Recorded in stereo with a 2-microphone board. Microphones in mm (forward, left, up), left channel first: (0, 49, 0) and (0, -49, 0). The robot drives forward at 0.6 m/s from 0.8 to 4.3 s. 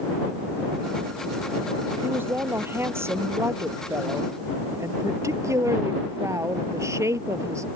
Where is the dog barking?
No dog barking in this recording.